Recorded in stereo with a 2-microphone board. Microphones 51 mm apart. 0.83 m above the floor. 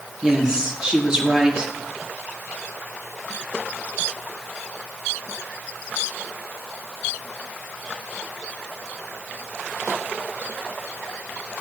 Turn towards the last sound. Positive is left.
turn(degrees=-15)  # may be behind; listen again after turning